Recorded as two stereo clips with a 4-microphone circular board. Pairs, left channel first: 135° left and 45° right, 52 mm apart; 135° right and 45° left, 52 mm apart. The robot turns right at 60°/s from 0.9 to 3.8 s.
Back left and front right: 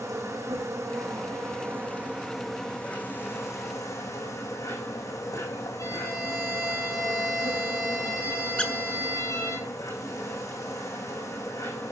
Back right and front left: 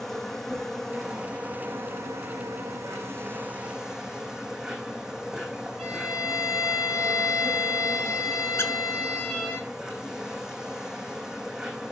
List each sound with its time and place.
0.0 s an insect: 50° right, 6.5 m; by 11.9 s 125° left, 6.5 m
5.8 s a violin: 140° left, 7 m
8.6 s a squeak: 160° right, 1.5 m